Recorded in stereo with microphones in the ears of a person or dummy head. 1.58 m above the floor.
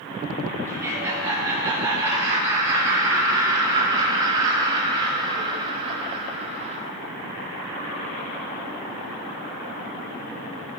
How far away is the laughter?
About 5 m.